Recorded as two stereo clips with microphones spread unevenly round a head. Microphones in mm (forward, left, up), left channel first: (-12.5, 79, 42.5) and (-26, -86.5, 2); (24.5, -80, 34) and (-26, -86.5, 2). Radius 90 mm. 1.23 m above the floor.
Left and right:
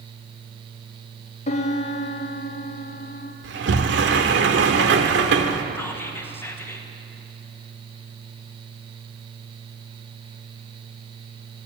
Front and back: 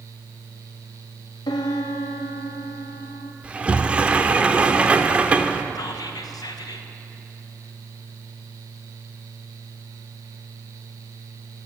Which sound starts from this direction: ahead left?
A piano, at 1.5 s.